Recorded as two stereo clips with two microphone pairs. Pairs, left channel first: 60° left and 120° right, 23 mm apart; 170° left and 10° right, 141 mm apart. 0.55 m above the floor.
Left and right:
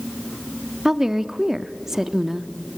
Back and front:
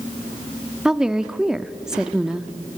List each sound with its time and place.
0.8 s a woman speaking: 95° right, 0.6 m